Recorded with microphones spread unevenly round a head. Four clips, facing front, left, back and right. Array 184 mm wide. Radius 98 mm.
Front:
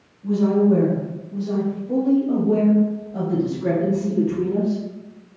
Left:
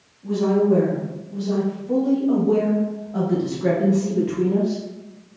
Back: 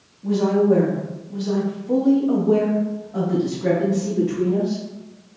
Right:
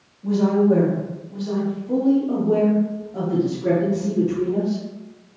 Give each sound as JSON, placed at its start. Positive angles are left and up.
{"t": 0.2, "sound": "a woman speaking", "azimuth_deg": -160, "distance_m": 1.9}